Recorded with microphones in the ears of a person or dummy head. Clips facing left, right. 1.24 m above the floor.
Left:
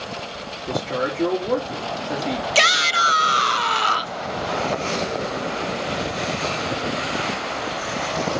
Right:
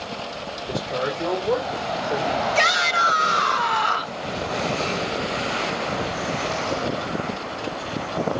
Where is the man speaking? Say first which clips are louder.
Left 2 dB; 65° left (ahead or behind), 3.5 m.